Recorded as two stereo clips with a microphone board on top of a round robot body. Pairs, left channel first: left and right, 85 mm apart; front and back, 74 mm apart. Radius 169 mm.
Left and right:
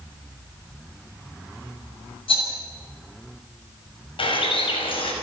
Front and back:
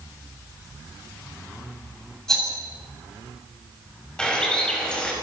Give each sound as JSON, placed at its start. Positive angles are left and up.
{"t": 2.3, "sound": "a rattle", "azimuth_deg": 85, "distance_m": 8.0}
{"t": 4.2, "sound": "a bird", "azimuth_deg": 80, "distance_m": 5.0}